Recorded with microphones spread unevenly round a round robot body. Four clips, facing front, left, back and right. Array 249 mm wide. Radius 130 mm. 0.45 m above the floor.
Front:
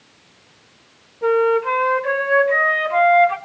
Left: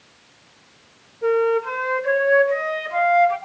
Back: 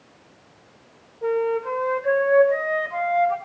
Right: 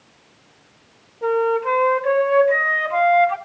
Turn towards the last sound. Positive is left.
turn(degrees=-25)